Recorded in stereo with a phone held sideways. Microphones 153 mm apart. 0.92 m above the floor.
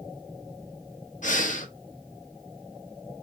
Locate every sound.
1.2 s breathing: 55° left (ahead or behind), 0.7 m